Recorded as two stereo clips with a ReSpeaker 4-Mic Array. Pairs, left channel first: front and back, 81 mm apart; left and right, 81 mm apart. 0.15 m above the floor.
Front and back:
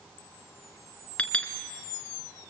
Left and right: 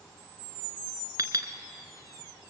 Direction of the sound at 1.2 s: 70° right.